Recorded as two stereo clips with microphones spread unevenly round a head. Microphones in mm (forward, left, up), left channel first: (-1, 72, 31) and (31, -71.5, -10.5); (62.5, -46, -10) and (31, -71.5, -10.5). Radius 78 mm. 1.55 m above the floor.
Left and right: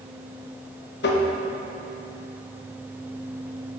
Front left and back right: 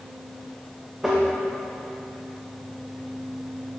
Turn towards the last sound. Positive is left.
turn(degrees=130)